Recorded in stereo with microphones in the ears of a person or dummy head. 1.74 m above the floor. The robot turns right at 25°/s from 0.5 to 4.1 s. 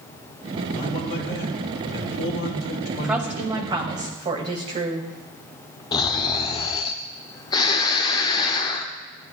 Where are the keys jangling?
I don't hear keys jangling.